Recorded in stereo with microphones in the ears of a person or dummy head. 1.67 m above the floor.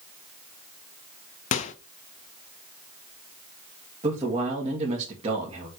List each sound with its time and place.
1.5 s a microwave: 35° left (ahead or behind), 0.5 m
4.0 s a man speaking: 35° right (ahead or behind), 2 m